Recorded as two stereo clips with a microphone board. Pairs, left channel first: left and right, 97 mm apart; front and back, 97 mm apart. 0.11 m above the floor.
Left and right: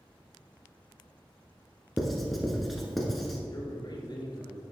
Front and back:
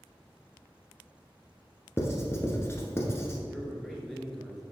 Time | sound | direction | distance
2.0 | writing | straight ahead | 1.3 m
3.5 | a man speaking | 85° left | 2.0 m